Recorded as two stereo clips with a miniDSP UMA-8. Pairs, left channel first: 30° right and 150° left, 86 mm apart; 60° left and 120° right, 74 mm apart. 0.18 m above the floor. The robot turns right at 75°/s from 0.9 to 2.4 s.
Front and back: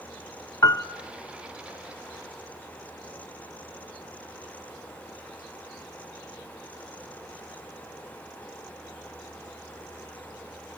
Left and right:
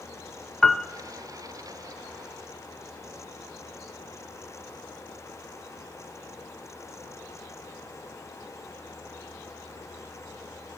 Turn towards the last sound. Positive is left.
turn(degrees=90)